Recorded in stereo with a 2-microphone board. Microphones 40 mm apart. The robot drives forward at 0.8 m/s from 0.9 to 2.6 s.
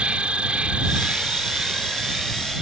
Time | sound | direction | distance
0.0 | an insect | 30° right (ahead or behind) | ?